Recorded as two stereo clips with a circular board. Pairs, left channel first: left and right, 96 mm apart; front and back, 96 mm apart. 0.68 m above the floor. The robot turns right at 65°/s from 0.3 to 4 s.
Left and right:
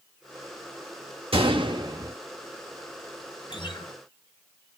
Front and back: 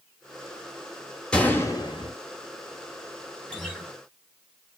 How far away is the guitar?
About 1.8 m.